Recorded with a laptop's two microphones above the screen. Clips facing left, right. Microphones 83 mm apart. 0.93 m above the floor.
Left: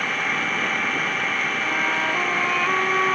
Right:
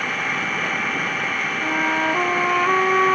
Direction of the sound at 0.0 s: Centre (ahead or behind).